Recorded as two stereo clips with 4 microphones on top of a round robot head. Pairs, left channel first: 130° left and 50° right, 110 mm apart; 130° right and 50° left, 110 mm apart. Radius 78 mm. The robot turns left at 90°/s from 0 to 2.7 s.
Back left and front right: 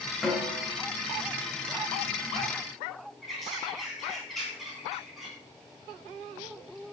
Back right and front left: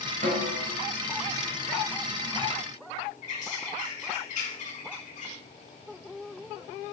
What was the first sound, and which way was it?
A snare drum, 40° left.